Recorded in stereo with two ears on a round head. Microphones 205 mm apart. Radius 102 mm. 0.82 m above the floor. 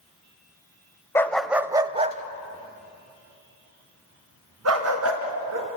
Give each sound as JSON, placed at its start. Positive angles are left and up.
{"t": 1.1, "sound": "a dog barking", "side_deg": 10, "distance_m": 0.9}